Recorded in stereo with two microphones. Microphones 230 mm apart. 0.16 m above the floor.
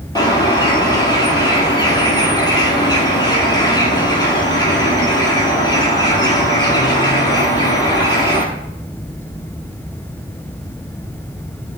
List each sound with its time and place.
0.1 s a bird: 15° left (ahead or behind), 1.6 m